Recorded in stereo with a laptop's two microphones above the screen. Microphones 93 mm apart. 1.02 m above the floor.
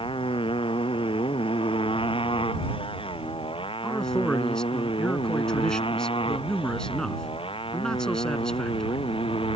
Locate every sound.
0.0 s a motorcycle: 75° left (ahead or behind); by 9.6 s 80° left
3.8 s a man speaking: 10° left (ahead or behind)